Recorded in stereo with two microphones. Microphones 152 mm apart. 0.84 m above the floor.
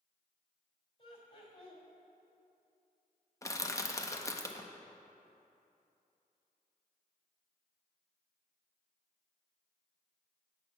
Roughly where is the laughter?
Left.